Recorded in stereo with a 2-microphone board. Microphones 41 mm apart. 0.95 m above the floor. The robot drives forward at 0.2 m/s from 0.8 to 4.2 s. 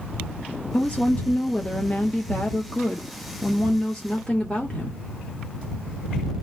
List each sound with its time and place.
0.7 s a woman speaking: 30° left (ahead or behind), 0.6 m; by 5.0 s 15° left (ahead or behind), 1.2 m